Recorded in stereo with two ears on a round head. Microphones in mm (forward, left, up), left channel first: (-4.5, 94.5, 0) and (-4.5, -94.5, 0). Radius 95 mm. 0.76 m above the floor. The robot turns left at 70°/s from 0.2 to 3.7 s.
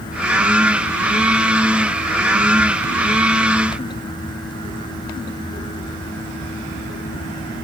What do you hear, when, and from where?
Only background noise.